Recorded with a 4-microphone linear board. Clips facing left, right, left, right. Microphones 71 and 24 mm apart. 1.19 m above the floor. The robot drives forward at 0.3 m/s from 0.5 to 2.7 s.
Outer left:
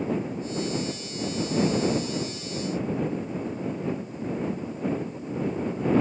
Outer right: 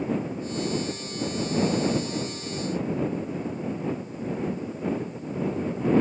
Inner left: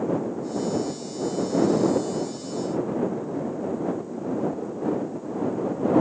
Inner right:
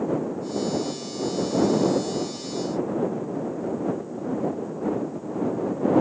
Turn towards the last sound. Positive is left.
No sound to turn to.